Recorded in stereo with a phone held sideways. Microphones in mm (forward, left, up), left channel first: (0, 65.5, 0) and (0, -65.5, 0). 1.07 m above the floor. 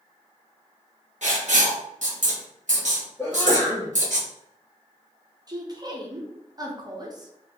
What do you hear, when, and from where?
1.2 s writing: 65° right (ahead or behind), 1.2 m
3.2 s a sneeze: 5° left (ahead or behind), 1.4 m
5.5 s a woman speaking: 30° right (ahead or behind), 0.7 m